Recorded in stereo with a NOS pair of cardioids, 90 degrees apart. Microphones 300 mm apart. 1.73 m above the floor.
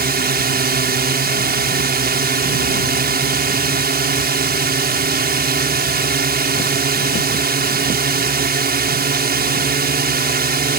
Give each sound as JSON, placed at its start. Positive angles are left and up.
{"t": 0.0, "sound": "a drone", "azimuth_deg": -30}